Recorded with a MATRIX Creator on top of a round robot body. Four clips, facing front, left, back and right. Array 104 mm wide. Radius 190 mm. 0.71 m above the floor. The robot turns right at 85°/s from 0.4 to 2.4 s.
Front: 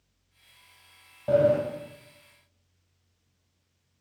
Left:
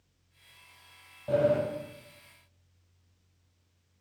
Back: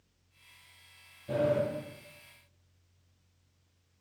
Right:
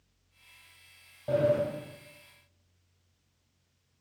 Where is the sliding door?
5° right, 1.6 m; by 1.6 s 20° left, 1.6 m.